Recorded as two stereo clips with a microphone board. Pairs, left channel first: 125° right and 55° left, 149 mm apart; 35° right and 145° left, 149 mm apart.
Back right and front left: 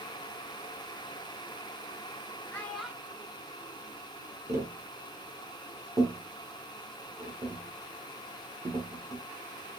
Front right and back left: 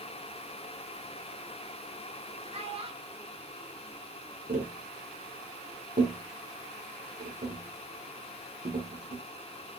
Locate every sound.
2.5 s a child speaking: 165° left, 0.8 m; by 4.4 s 55° left, 1.2 m
4.5 s tapping: 125° left, 1.5 m